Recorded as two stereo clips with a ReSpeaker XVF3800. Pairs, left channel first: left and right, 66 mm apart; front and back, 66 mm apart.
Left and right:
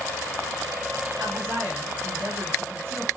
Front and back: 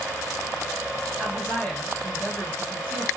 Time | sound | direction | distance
1.2 | a woman speaking | 65° right | 1.8 m